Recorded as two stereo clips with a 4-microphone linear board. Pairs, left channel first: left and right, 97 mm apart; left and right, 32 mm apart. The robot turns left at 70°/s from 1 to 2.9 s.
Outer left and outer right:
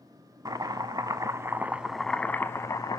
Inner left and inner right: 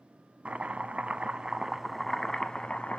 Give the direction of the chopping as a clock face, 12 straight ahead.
4 o'clock.